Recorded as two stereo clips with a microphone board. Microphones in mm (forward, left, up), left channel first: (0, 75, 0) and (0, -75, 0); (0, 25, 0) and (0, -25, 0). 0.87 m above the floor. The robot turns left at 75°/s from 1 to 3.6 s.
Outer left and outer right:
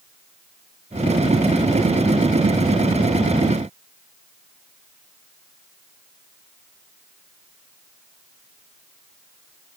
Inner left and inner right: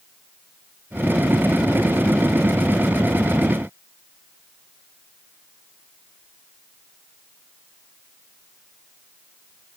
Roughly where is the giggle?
No giggle in this recording.